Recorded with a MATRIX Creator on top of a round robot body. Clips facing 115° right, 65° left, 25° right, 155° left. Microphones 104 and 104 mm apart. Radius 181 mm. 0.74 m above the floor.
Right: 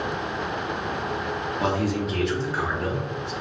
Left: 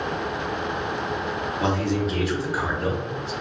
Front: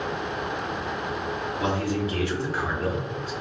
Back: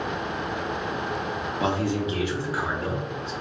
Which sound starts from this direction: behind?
A man speaking, at 1.6 s.